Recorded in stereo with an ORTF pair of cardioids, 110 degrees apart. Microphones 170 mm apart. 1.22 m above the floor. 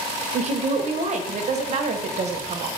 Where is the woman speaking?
40° right, 0.6 m.